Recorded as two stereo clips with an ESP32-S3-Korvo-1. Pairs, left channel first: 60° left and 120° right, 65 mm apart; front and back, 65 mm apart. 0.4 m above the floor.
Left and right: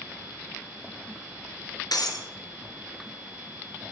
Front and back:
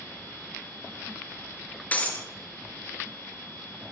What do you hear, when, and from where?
1.9 s breaking glass: 65° left, 2.5 m